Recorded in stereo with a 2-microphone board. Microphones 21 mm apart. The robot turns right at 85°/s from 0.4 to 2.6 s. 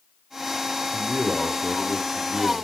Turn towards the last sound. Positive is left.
turn(degrees=35)